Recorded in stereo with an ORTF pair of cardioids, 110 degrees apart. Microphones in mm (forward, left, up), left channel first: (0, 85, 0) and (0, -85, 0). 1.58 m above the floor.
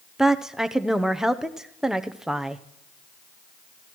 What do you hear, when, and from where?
0.2 s a woman speaking: 5° right, 0.7 m